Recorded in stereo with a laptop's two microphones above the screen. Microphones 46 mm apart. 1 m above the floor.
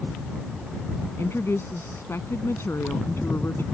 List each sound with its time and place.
1.2 s a woman speaking: 65° left (ahead or behind)